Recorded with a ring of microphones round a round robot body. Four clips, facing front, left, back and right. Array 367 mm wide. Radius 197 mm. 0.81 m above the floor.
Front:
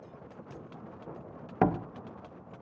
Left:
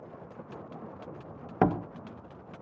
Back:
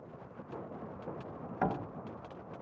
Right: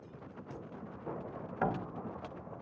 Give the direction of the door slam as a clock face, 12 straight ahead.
10 o'clock.